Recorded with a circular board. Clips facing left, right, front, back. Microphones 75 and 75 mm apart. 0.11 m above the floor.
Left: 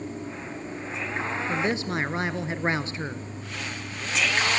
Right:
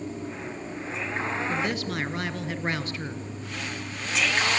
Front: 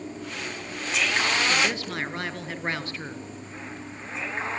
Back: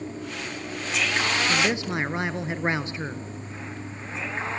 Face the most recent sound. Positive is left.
turn(degrees=125)